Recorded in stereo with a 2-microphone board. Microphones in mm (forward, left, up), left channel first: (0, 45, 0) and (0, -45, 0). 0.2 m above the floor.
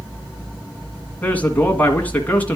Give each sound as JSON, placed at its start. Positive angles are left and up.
{"t": 1.2, "sound": "a man speaking", "side_deg": 20, "distance_m": 1.7}